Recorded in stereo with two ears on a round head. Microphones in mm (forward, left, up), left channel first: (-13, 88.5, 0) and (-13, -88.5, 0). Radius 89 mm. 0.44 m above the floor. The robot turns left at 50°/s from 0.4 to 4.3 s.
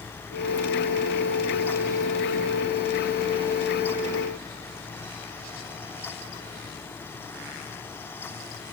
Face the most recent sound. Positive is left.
No sound to turn to.